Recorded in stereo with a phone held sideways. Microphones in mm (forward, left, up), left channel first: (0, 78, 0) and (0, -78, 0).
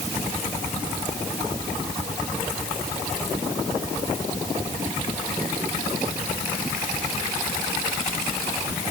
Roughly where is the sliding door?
I don't hear a sliding door.